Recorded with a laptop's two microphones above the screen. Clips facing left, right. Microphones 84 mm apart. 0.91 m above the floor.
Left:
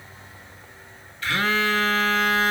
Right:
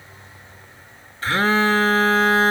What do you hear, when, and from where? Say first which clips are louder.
1.2 s a phone buzzing: right 5 dB; 35° right (ahead or behind), 0.6 m